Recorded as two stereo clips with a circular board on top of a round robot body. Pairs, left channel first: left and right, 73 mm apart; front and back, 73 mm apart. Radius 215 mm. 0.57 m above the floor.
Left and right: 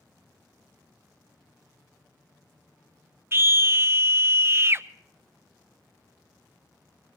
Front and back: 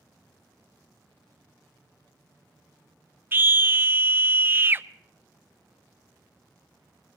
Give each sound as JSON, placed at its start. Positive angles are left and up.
{"t": 3.3, "sound": "a scream", "azimuth_deg": -130, "distance_m": 0.7}